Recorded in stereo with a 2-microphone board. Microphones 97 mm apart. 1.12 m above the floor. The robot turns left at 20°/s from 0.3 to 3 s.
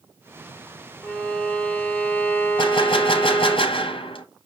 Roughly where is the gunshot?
Left.